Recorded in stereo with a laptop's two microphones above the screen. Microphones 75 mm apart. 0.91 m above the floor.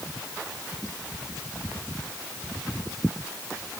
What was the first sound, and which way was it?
Only background noise.